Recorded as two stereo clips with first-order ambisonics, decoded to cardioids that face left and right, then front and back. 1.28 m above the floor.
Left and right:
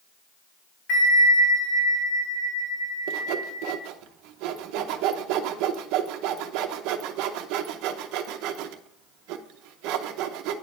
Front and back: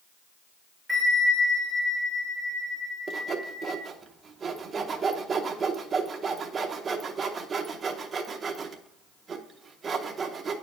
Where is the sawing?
110° right, 0.7 m.